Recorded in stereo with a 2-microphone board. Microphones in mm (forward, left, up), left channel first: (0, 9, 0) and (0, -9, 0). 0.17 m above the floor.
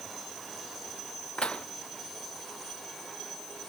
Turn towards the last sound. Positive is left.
turn(degrees=75)  # may be behind; listen again after turning